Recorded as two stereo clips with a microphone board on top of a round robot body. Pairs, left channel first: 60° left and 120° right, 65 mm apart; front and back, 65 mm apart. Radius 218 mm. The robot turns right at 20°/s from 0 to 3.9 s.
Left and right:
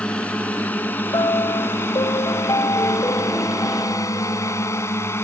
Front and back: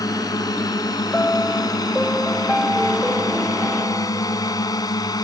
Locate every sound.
0.0 s a drone: 15° right; by 5.2 s 10° left
1.1 s a piano: 65° left; by 4.9 s 120° left